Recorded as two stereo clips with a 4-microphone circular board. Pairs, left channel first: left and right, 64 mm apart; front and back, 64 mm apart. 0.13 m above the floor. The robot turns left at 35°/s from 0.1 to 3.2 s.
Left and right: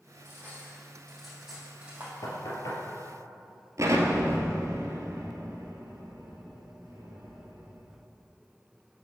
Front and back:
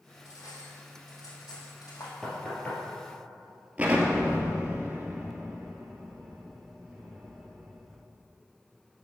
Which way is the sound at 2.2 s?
80° left.